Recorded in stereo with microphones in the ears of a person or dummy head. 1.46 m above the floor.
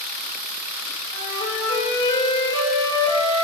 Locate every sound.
1.1 s a flute: 20° left (ahead or behind), 2 m